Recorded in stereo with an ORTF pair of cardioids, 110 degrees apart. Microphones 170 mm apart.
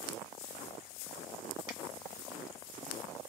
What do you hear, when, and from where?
1.7 s a finger snap: 10° right, 1.5 m